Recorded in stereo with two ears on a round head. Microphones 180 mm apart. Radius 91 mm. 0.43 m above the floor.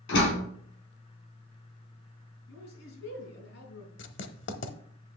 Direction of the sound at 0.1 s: 70° left (ahead or behind).